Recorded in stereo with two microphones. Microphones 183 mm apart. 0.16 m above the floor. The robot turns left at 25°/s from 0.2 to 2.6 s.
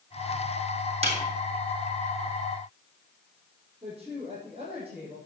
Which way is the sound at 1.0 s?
35° right (ahead or behind).